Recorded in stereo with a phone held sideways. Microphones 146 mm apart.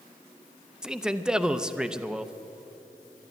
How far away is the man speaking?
About 0.6 m.